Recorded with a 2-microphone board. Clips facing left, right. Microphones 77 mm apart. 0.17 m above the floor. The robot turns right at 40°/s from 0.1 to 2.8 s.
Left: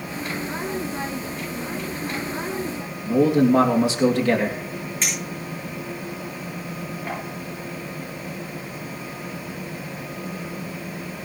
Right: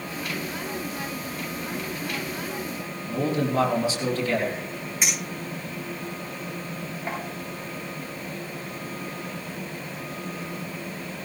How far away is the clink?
About 8.5 m.